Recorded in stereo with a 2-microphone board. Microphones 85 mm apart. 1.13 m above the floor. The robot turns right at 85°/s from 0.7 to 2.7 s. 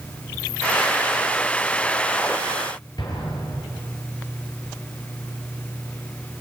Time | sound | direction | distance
3.0 | an explosion | 55° left (ahead or behind) | 6.5 m